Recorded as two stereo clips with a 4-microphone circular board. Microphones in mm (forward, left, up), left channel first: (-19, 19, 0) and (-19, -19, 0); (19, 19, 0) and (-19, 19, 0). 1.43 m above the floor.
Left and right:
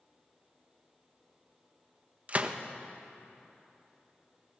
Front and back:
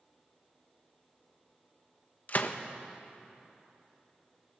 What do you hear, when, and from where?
2.3 s a gunshot: 40° right, 1.2 m